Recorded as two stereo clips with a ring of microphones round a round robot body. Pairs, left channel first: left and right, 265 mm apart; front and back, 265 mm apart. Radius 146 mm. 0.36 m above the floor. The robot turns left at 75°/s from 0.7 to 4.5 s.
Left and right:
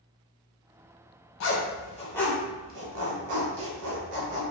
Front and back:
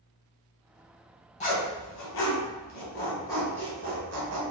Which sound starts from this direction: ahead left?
A zipper, at 1.4 s.